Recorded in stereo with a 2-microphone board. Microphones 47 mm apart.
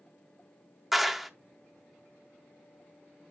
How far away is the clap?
About 0.5 m.